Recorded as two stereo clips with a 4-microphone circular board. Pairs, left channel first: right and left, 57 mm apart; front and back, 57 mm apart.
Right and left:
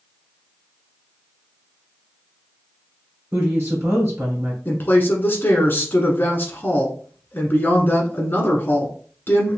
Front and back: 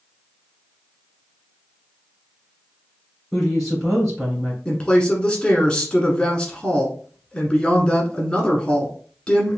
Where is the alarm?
I don't hear an alarm.